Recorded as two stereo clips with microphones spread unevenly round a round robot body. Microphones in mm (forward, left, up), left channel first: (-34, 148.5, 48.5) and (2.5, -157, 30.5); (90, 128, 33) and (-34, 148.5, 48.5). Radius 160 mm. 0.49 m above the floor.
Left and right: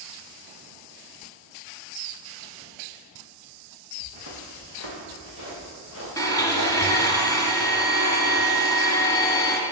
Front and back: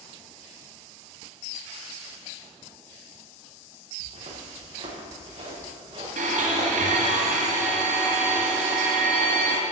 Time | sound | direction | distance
4.0 | footsteps | 140° left | 5 m
6.2 | a blender | 175° left | 1.8 m